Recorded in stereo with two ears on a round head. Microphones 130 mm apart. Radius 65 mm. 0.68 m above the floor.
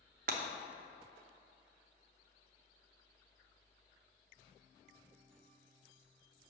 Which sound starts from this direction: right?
Breaking glass, at 0.3 s.